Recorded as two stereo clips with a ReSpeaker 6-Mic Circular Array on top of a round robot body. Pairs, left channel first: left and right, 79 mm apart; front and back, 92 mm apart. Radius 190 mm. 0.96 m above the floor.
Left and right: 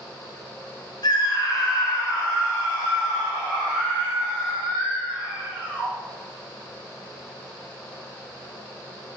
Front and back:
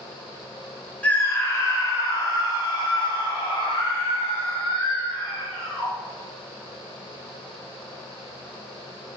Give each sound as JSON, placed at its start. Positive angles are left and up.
{"t": 1.0, "sound": "a scream", "azimuth_deg": 75, "distance_m": 1.3}